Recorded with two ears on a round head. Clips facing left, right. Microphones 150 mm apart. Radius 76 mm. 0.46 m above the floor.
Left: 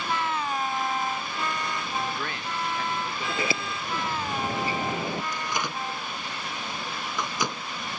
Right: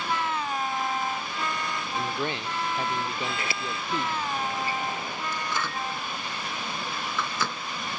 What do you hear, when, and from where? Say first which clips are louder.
1.9 s a man speaking: right 5 dB; 20° right (ahead or behind)
3.3 s a sliding door: left 3 dB; 85° left
5.3 s a microwave: even; 15° left (ahead or behind)